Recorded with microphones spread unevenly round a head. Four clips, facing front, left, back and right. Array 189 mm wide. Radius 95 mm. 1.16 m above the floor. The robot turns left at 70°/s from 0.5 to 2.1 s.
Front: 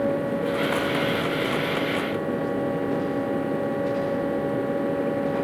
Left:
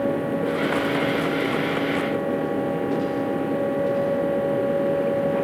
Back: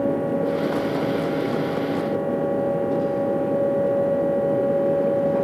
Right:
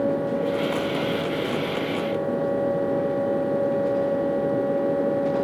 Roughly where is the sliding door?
No sliding door in this recording.